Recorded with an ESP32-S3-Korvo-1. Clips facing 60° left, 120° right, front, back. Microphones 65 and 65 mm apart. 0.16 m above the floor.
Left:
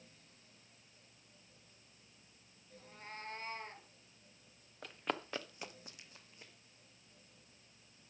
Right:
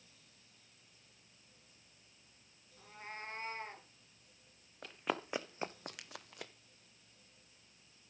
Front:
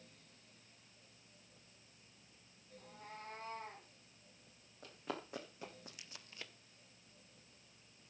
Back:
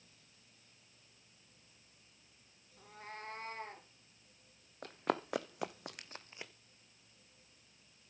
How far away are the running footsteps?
About 1.1 m.